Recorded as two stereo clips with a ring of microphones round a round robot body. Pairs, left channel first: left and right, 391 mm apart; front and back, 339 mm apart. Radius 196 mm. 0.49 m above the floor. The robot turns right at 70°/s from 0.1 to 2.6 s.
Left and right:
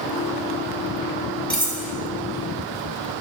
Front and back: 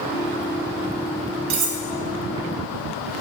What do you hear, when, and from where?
1.5 s cutlery clinking: 175° left, 1.8 m; by 1.8 s 165° right, 1.8 m